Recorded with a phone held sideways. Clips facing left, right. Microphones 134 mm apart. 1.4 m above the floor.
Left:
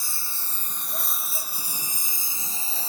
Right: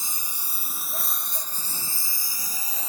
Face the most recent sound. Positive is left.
turn(degrees=30)  # may be behind; listen again after turning